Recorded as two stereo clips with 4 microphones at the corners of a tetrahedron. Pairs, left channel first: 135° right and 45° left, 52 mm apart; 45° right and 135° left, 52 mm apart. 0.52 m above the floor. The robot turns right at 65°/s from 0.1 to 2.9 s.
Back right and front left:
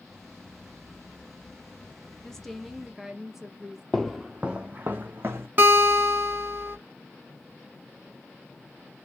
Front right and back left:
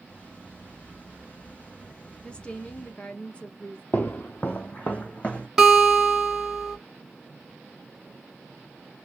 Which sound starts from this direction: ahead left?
A guitar, at 5.6 s.